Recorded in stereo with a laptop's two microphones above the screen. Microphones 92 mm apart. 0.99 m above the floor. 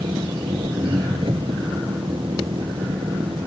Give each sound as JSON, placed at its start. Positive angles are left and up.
{"t": 0.0, "sound": "an engine running", "side_deg": -75}